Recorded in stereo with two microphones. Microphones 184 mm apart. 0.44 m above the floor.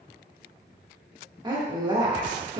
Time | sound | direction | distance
1.4 | a woman speaking | 25° right (ahead or behind) | 0.8 m